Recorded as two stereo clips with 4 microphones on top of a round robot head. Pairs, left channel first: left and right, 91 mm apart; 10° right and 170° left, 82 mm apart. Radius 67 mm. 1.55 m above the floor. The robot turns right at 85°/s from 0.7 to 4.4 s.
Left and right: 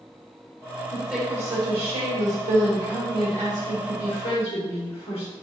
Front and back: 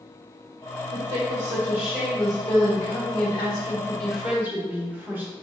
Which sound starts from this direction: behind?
A woman speaking, at 0.9 s.